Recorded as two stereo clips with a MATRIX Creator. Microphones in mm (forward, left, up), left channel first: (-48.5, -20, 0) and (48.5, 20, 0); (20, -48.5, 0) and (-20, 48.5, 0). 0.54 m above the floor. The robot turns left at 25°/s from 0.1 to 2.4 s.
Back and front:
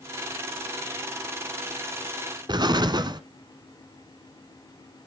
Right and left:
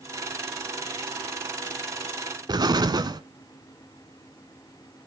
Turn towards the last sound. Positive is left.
turn(degrees=65)